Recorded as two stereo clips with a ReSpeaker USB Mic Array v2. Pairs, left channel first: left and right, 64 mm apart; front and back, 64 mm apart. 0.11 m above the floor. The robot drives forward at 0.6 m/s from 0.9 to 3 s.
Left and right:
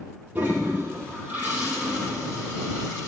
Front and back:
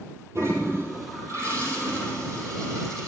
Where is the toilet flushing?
150° right, 3 m; by 3.1 s 160° right, 4 m.